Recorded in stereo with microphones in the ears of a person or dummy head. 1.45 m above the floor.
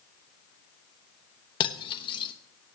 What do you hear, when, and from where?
1.6 s cutlery clinking: 25° left (ahead or behind), 1.0 m